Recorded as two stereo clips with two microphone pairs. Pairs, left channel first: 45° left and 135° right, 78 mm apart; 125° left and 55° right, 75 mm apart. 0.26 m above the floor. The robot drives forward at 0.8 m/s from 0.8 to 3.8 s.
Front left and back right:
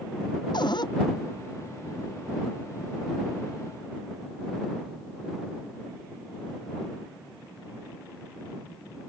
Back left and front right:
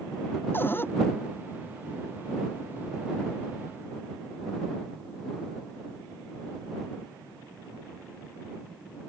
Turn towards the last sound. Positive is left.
turn(degrees=105)